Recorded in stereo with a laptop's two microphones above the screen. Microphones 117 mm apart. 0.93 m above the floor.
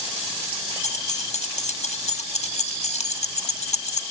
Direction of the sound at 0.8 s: 70° left (ahead or behind).